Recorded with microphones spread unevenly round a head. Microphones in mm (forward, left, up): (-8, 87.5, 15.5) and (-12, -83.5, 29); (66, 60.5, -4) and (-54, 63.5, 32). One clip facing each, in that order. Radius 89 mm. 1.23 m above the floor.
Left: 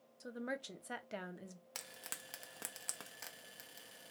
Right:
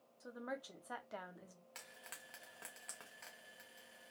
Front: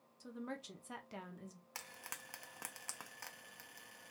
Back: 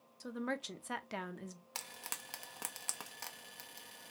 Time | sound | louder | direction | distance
0.2 | a woman speaking | left 3 dB, back 7 dB | 150° left | 0.6 m
1.8 | frying | left 4 dB, back 3 dB | 110° left | 0.6 m